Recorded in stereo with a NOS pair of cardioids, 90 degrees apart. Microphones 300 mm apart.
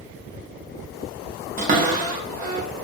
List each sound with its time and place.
1.6 s a cupboard door: 25° right, 0.8 m